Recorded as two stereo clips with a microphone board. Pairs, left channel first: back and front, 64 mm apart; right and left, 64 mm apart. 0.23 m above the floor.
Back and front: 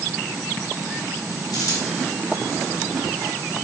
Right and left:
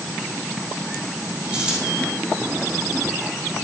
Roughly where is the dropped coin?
Behind.